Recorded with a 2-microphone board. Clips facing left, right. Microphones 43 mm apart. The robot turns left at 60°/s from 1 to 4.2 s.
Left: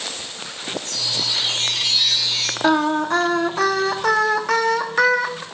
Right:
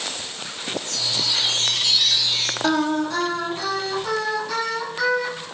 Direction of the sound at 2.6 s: 160° left.